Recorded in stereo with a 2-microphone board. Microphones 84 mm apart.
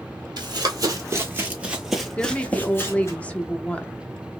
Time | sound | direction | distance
0.4 | running footsteps | 50° right (ahead or behind) | 1.1 m
2.2 | a woman speaking | 15° left (ahead or behind) | 0.5 m